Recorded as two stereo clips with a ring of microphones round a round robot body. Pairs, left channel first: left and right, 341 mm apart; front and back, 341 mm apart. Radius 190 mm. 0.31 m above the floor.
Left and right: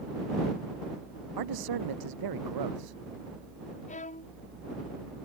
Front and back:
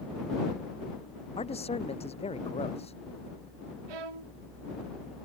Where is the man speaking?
70° right.